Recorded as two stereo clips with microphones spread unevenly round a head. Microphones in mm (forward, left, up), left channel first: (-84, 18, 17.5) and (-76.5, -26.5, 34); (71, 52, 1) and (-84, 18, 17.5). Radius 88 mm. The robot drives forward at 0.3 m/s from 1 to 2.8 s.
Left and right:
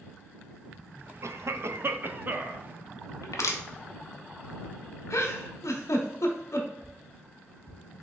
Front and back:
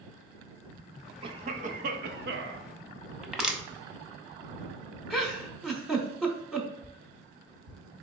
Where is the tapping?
160° left, 0.9 m.